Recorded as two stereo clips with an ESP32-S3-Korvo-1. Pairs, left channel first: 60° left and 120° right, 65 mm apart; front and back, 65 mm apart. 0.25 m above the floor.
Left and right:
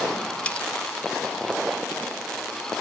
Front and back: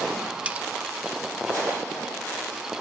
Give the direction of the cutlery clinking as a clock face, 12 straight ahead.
8 o'clock.